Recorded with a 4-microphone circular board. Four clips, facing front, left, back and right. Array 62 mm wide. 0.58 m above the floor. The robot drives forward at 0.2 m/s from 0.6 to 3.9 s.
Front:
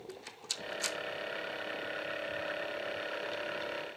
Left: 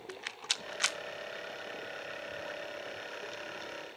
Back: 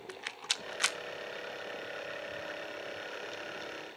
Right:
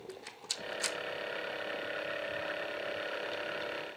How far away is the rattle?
About 0.5 m.